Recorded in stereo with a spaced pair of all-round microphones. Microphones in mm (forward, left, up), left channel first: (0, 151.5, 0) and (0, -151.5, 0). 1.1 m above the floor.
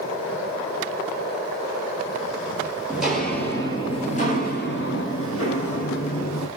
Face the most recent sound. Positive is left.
turn(degrees=60)  # may be behind; listen again after turning